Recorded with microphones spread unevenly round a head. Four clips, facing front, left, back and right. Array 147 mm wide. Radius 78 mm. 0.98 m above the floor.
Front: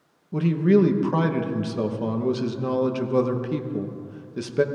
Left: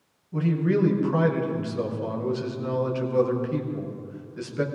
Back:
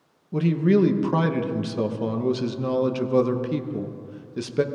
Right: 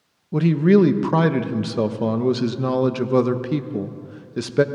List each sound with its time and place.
0.3 s a man speaking: 100° right, 1.0 m